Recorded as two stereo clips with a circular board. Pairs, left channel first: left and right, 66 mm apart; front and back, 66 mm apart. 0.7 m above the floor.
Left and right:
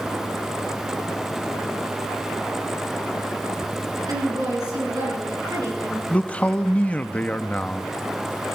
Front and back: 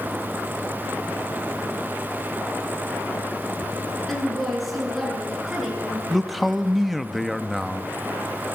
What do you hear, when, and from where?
4.1 s a woman speaking: 90° right, 7 m; by 6.0 s 100° right, 8 m
6.1 s a man speaking: 90° left, 0.8 m